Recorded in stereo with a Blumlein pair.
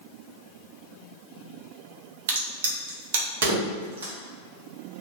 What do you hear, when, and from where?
2.3 s a crack: 55° right, 0.8 m